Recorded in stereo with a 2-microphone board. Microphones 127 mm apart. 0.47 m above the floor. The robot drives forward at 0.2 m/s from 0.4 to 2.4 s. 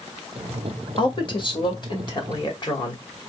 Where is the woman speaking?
45° left (ahead or behind), 2.0 m; by 3.0 s 40° left (ahead or behind), 2 m.